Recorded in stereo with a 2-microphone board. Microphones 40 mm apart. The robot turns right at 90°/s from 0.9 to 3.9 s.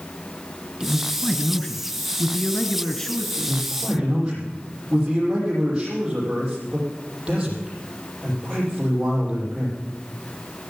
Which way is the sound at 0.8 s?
30° right.